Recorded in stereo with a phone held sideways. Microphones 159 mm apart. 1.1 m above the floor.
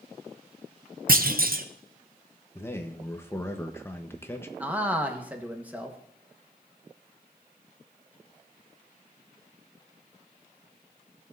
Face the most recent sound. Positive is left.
turn(degrees=-10)  # may be behind; listen again after turning